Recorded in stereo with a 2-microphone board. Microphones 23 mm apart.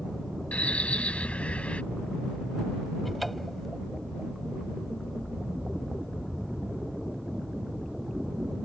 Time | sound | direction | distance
0.5 | a bird | 85° left | ?
3.0 | a cupboard door | 10° left (ahead or behind) | ?